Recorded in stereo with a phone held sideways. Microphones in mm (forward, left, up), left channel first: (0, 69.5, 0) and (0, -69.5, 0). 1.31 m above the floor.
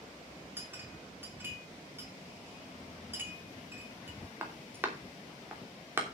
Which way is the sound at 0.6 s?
15° right (ahead or behind).